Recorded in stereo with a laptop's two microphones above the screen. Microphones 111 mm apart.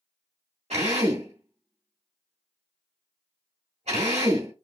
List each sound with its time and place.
0.7 s a drill: 75° right (ahead or behind), 1.5 m